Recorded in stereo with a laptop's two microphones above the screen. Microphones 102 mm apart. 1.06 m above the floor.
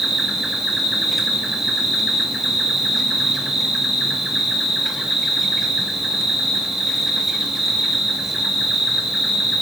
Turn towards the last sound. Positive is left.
turn(degrees=0)  # may be behind; listen again after turning